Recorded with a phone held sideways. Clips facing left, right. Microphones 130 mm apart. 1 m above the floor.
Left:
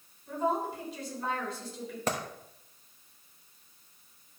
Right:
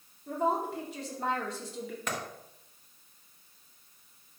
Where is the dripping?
No dripping in this recording.